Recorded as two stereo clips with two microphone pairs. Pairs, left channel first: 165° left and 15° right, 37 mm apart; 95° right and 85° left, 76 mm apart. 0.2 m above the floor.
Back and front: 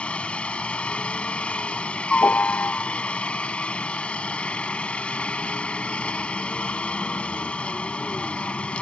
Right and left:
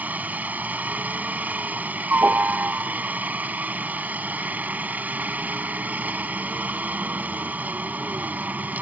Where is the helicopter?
140° left.